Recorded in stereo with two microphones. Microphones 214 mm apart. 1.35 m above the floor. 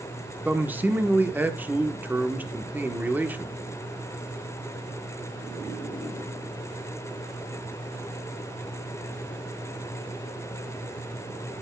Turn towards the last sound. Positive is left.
turn(degrees=-10)  # may be behind; listen again after turning